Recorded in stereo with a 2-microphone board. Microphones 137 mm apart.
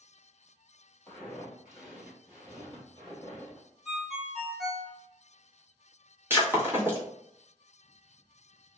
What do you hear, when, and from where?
1.1 s footsteps: 5° left (ahead or behind), 1.7 m; by 3.7 s 35° right (ahead or behind), 1.9 m
3.9 s a ringtone: 5° left (ahead or behind), 1.4 m
6.3 s breaking glass: 15° right (ahead or behind), 0.9 m